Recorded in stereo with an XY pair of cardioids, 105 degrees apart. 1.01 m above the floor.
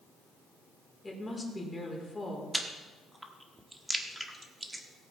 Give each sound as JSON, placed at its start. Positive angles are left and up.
{"t": 1.0, "sound": "a woman speaking", "azimuth_deg": 20, "distance_m": 3.5}
{"t": 2.5, "sound": "chewing", "azimuth_deg": -10, "distance_m": 1.4}